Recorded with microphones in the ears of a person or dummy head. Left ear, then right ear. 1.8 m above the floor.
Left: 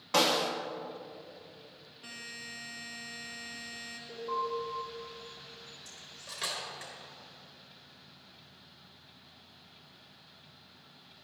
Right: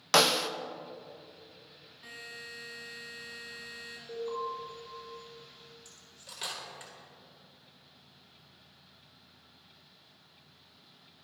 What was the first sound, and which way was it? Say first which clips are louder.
A snare drum: right 2 dB; 65° right (ahead or behind).